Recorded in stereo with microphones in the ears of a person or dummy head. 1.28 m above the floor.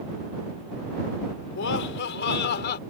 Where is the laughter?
75° left (ahead or behind); by 2.8 s 60° left (ahead or behind).